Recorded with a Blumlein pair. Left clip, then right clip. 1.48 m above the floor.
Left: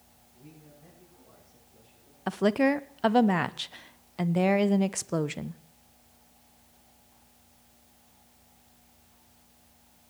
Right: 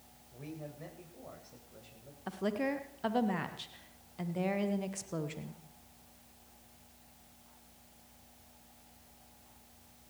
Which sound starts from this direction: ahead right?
A man speaking, at 0.3 s.